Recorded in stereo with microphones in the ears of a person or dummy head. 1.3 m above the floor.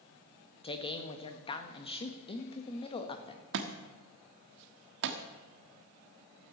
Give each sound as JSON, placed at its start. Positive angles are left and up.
{"t": 0.6, "sound": "a man speaking", "side_deg": 25, "distance_m": 1.5}
{"t": 3.5, "sound": "a thud", "side_deg": -60, "distance_m": 1.2}